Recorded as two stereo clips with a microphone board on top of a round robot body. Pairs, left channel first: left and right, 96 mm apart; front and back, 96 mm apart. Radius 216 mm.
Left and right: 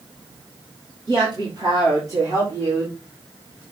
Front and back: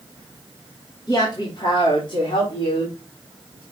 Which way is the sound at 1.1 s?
50° right.